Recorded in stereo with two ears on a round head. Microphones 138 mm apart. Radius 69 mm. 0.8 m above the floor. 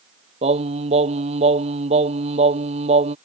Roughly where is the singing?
Right.